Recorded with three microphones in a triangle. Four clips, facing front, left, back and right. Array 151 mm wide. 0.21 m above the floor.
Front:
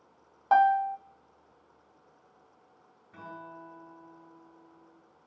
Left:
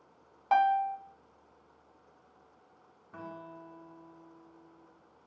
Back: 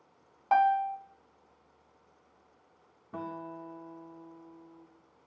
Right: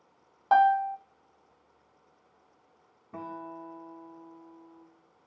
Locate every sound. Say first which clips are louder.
0.5 s a piano: right 4 dB, front 3 dB; 55° right, 0.8 m
3.1 s a guitar: right 5 dB, back 5 dB; 140° right, 5.5 m